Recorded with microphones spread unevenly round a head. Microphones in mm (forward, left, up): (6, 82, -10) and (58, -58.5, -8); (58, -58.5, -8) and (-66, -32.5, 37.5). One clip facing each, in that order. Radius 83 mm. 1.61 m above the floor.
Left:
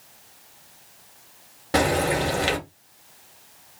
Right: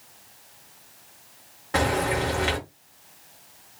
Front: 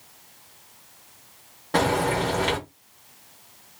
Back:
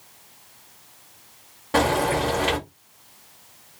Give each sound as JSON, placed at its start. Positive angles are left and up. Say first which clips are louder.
{"t": 1.7, "sound": "frying", "louder": "left 3 dB, back 1 dB", "azimuth_deg": 115, "distance_m": 1.5}